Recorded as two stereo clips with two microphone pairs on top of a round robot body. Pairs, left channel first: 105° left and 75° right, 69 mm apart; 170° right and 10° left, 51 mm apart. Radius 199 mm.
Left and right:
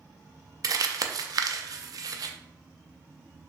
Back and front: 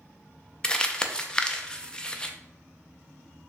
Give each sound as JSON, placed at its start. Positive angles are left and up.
{"t": 0.6, "sound": "crumpling", "azimuth_deg": -105, "distance_m": 0.5}